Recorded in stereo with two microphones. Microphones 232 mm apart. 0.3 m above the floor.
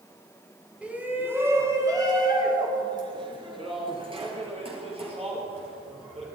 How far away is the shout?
About 2 m.